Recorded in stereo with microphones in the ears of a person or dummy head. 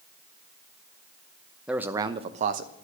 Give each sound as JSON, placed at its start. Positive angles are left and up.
{"t": 1.7, "sound": "a man speaking", "side_deg": -5, "distance_m": 0.8}